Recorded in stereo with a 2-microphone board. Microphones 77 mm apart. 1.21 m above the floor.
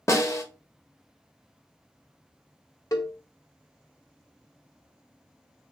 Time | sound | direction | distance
0.1 | a snare drum | 35° left (ahead or behind) | 1.1 m
2.9 | a cowbell | 45° left (ahead or behind) | 1.2 m